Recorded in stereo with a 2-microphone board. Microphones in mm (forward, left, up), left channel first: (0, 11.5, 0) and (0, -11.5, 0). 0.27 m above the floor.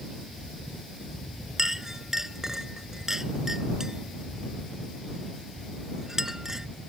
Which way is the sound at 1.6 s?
20° right (ahead or behind).